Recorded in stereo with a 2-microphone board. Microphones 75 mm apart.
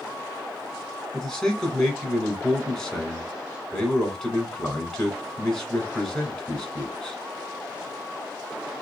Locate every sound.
1.1 s a man speaking: 10° left (ahead or behind), 1.4 m